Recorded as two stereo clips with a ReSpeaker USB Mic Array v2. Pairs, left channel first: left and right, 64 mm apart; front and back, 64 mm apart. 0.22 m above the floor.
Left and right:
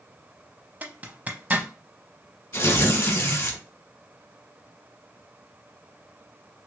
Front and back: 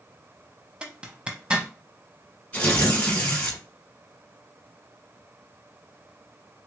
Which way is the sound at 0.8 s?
120° right.